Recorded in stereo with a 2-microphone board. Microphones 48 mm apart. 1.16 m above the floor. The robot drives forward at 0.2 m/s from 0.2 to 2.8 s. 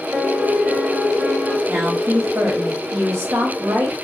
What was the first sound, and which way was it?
A piano, 45° right (ahead or behind).